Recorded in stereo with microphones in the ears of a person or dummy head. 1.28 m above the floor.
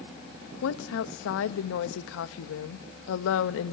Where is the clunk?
I don't hear a clunk.